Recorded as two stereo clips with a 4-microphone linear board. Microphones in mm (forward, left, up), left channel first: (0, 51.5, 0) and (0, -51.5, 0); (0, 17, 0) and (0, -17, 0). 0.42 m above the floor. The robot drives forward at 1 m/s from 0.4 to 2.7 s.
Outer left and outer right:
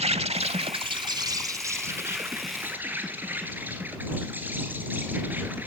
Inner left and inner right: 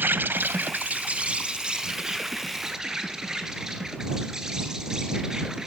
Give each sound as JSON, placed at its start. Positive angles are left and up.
{"t": 0.0, "sound": "an insect", "side_deg": -80, "distance_m": 0.8}